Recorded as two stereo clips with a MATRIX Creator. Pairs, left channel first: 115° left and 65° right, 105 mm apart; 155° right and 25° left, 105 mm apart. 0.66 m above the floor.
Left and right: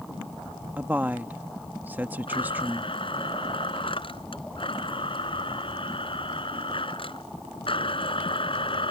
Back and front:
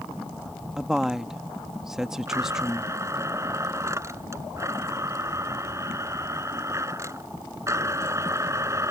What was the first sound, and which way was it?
A woman speaking, 55° right.